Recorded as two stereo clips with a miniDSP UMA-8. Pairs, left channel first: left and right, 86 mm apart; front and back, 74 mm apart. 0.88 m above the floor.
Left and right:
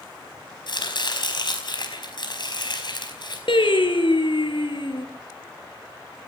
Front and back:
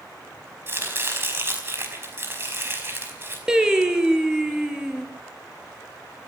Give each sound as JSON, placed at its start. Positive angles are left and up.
{"t": 0.7, "sound": "chopping", "azimuth_deg": 120, "distance_m": 5.0}
{"t": 3.5, "sound": "singing", "azimuth_deg": 100, "distance_m": 3.0}